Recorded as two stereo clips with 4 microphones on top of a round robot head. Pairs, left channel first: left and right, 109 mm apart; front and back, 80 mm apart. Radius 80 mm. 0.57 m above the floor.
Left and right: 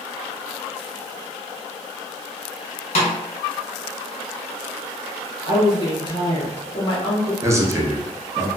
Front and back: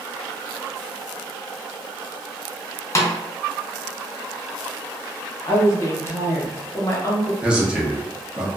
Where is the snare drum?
55° left, 0.6 m.